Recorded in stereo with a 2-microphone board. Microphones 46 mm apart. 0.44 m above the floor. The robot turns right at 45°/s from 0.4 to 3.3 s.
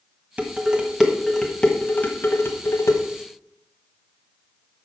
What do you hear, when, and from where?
0.4 s dishes clattering: 30° right (ahead or behind), 1.6 m; by 3.0 s 75° left (ahead or behind), 1.6 m